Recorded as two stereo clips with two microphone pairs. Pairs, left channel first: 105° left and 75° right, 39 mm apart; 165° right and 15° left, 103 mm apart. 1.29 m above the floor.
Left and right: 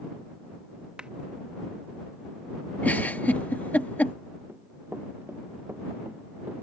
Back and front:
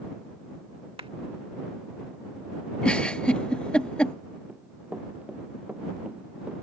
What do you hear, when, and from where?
1.0 s a clap: 10° right
2.8 s a giggle: 120° left
4.5 s running footsteps: 60° right; by 6.5 s 65° right